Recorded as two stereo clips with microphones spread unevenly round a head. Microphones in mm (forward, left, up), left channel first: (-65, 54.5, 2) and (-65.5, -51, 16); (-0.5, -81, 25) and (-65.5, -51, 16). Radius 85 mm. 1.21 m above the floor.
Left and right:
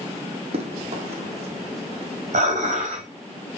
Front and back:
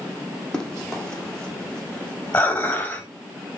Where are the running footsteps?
100° right, 3.5 m.